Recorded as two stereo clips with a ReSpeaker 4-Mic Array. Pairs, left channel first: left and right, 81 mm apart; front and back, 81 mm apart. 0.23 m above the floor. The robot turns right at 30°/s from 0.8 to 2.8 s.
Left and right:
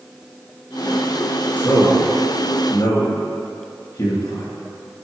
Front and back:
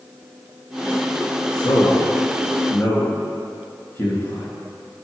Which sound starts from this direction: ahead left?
A man speaking, at 1.6 s.